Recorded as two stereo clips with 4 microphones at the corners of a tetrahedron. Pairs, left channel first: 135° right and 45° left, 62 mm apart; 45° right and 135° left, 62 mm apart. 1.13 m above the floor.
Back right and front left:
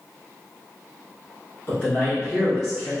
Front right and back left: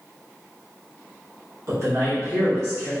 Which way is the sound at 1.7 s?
165° left.